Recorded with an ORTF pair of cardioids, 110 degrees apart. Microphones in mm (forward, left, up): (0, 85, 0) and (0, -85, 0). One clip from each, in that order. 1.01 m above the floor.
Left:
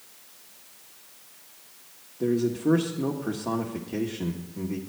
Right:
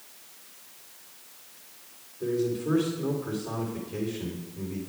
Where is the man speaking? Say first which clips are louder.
Left 3 dB; 60° left, 1.7 m.